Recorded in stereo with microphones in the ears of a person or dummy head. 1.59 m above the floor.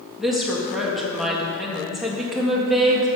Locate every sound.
0.2 s a woman speaking: 5° left (ahead or behind), 1.9 m